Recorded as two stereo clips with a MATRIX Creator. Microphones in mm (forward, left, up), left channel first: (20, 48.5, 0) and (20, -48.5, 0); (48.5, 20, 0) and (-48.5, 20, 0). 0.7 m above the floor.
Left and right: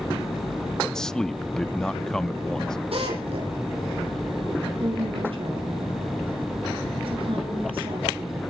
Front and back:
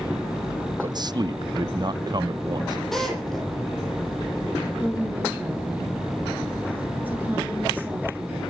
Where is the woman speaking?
110° right, 9.5 m.